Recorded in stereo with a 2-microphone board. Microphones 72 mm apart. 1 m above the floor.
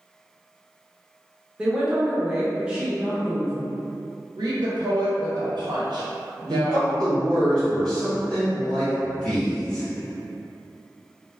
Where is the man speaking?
10° left (ahead or behind), 1.4 m.